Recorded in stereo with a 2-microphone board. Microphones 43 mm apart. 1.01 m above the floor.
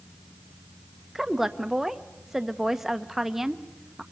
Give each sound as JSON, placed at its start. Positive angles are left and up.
{"t": 1.1, "sound": "a woman speaking", "side_deg": -5, "distance_m": 1.0}